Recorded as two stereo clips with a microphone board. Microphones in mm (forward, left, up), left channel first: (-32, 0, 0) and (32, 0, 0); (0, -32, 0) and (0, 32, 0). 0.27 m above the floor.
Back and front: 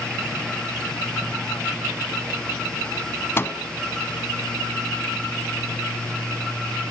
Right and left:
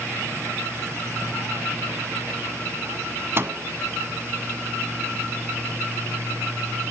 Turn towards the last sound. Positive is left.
turn(degrees=135)